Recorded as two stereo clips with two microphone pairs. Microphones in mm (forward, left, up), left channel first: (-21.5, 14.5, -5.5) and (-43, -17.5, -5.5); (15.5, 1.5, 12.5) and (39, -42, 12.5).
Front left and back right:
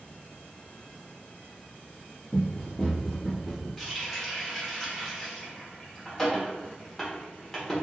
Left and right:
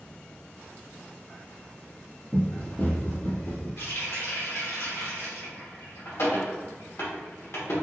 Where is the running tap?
130° left, 1.3 m.